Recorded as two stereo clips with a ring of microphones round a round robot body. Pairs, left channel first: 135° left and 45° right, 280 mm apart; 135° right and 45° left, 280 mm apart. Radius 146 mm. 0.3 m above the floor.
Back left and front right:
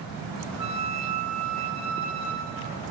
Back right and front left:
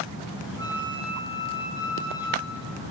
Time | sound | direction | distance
0.6 | a flute | 60° right | 7.5 m